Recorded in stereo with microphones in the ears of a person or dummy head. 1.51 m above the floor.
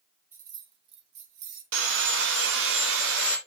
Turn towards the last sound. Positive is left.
turn(degrees=-65)  # may be behind; listen again after turning